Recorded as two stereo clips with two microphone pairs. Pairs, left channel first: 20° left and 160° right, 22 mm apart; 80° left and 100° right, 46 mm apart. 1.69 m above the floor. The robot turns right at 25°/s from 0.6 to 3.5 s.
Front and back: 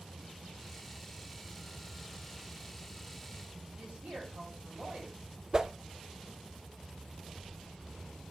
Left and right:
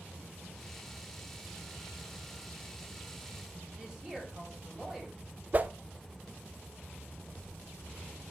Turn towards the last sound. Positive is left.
turn(degrees=-125)